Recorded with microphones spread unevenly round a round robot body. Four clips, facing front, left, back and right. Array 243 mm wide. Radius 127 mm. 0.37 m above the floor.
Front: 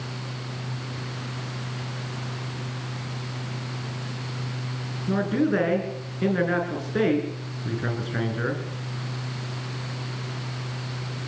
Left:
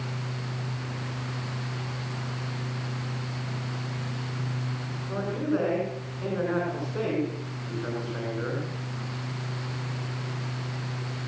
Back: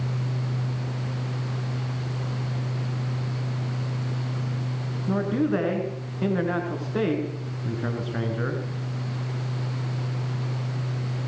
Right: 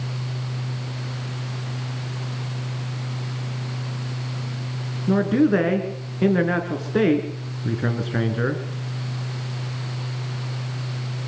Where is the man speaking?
95° right, 6.5 m.